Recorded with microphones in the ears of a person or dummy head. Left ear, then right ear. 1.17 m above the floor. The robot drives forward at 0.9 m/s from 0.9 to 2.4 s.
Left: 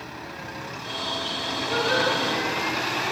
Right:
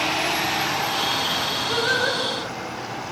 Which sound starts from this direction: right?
Singing, at 1.7 s.